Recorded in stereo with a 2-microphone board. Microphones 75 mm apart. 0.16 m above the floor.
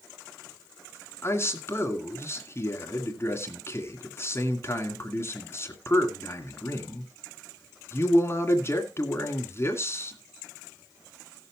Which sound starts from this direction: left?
A man speaking, at 1.2 s.